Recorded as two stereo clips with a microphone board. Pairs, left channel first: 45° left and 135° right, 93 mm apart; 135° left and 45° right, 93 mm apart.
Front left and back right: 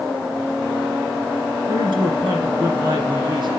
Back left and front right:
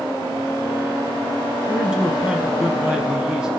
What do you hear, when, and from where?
1.7 s a man speaking: 125° right, 2.5 m